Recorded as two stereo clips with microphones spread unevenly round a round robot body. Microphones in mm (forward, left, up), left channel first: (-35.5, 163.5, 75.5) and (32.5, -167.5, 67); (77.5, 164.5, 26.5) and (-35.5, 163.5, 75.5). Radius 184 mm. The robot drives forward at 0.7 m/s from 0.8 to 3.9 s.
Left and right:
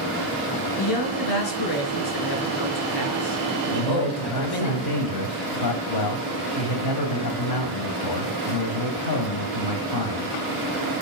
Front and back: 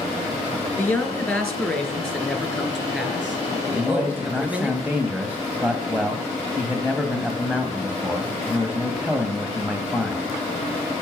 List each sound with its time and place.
0.8 s a man speaking: 75° left, 5 m; by 4.7 s 100° left, 5 m
3.7 s a man speaking: 85° left, 2 m; by 10.3 s 90° left, 2 m